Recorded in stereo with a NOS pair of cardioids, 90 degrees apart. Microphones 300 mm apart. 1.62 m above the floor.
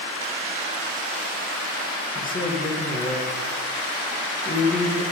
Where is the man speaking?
25° left, 2 m.